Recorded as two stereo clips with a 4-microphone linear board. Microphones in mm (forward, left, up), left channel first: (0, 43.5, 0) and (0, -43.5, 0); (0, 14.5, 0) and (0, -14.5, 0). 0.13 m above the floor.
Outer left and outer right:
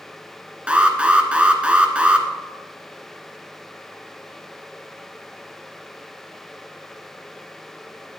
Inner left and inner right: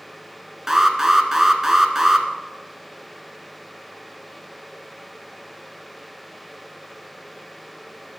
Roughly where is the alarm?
Centre.